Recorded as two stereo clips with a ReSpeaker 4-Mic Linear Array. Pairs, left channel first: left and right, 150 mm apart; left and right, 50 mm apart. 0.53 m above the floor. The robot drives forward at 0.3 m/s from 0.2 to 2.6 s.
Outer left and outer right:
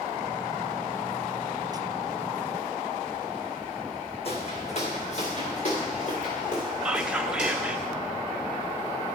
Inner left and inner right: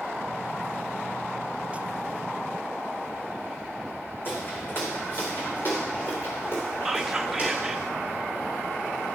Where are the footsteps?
45° left (ahead or behind), 1.7 m; by 7.8 s 55° left (ahead or behind), 5 m.